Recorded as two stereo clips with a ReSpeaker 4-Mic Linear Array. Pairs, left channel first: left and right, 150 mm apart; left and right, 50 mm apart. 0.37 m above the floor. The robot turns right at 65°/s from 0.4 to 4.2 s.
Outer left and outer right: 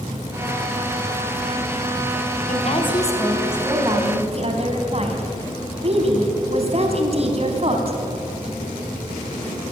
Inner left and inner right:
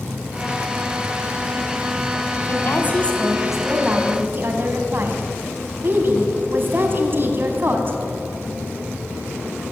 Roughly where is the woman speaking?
Behind left.